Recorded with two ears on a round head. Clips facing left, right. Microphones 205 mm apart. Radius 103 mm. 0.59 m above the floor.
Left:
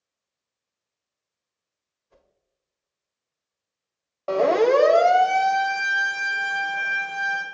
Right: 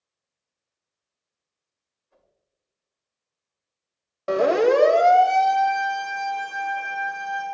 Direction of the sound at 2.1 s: 60° left (ahead or behind).